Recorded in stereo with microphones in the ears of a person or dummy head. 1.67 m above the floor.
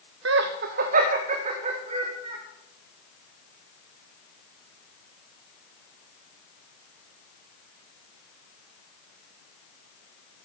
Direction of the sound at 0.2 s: 70° right (ahead or behind).